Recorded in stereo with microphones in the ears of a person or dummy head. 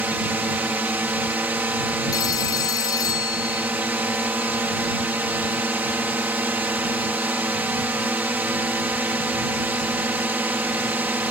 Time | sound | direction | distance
0.0 | a drone | 10° right (ahead or behind) | ?
2.1 | a phone ringing | 20° left (ahead or behind) | ?